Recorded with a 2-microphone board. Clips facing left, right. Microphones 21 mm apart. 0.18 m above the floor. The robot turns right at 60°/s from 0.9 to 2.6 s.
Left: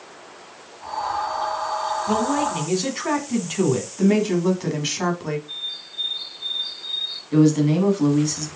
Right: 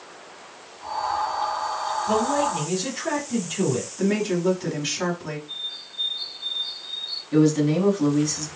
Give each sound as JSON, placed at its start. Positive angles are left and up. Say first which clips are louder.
{"t": 2.1, "sound": "a man speaking", "louder": "even", "azimuth_deg": 35, "distance_m": 1.3}
{"t": 4.0, "sound": "a woman speaking", "louder": "left 4 dB", "side_deg": 20, "distance_m": 1.3}
{"t": 5.5, "sound": "a bird", "louder": "left 2 dB", "side_deg": 30, "distance_m": 1.6}
{"t": 7.3, "sound": "a man speaking", "louder": "left 2 dB", "side_deg": 5, "distance_m": 1.2}